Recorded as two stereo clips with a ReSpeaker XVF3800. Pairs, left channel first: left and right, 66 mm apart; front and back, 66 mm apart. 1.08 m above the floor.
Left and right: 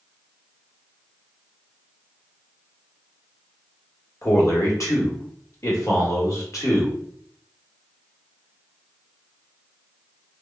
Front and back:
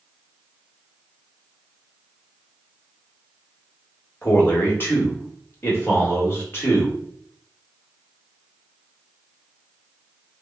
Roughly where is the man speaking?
Ahead left.